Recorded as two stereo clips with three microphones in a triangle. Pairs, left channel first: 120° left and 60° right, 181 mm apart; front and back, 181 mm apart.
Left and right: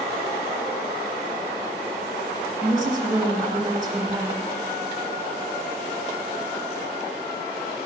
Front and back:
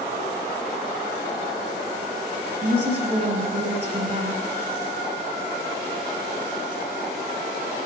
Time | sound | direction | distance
2.6 | a woman speaking | 130° right | 4.5 m